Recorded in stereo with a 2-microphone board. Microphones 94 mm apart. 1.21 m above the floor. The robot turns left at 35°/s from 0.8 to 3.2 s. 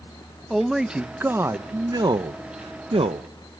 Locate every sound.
0.5 s a man speaking: 5° right, 0.7 m; by 3.3 s 90° right, 0.7 m